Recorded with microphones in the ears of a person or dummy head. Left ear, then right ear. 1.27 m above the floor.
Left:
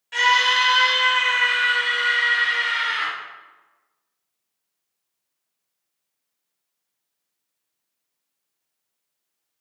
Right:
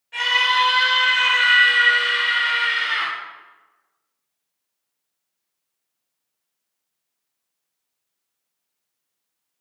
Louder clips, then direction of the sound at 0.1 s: Left 1 dB; 40° left (ahead or behind).